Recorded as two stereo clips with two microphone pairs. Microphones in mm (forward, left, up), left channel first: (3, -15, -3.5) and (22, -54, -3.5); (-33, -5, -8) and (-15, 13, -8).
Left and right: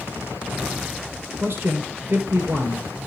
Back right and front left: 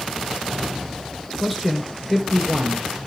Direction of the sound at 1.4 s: 65° right.